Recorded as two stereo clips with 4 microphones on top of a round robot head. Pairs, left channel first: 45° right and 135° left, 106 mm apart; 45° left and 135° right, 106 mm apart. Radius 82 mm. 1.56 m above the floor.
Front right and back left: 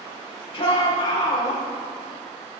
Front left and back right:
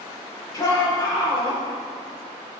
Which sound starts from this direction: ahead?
A shout, at 0.5 s.